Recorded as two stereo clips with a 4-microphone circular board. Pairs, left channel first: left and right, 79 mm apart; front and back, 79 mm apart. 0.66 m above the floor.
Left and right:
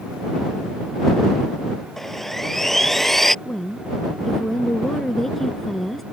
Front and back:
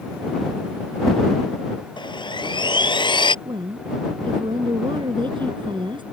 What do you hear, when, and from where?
2.0 s sawing: 5° left
3.5 s a woman speaking: 175° left